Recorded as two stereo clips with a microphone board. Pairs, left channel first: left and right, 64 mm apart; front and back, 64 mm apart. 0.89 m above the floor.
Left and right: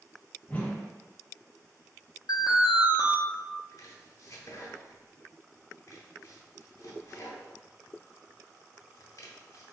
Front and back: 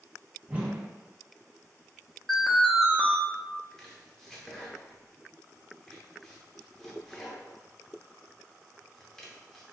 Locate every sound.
0.5 s a whoosh: 130° left, 0.6 m
2.3 s an alarm: 90° left, 0.6 m
3.7 s chopping: 80° left, 0.9 m